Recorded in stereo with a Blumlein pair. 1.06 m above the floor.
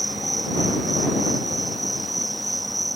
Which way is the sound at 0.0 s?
Straight ahead.